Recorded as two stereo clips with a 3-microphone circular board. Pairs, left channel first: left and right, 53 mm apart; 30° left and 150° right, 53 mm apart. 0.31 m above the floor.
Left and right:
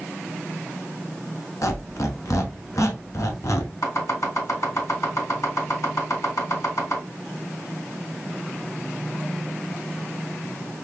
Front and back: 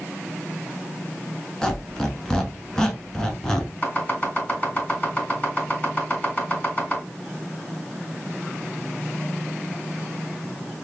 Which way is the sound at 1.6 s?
110° left.